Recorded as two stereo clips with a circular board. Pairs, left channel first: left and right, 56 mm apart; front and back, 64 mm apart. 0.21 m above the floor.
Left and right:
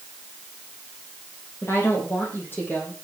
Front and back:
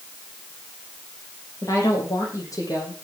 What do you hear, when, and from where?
1.6 s a woman speaking: 45° left, 9 m; by 2.9 s 30° left, 9.5 m